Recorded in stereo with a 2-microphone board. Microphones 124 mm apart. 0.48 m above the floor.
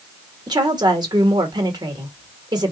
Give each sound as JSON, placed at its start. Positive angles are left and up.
{"t": 0.5, "sound": "a woman speaking", "side_deg": -35, "distance_m": 1.5}